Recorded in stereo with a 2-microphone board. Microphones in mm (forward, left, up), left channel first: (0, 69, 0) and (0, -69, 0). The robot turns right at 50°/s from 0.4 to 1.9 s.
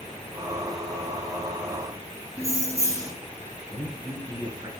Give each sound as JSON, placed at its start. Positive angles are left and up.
{"t": 2.4, "sound": "keys jangling", "side_deg": -25, "distance_m": 1.2}
{"t": 3.7, "sound": "a man speaking", "side_deg": -25, "distance_m": 2.0}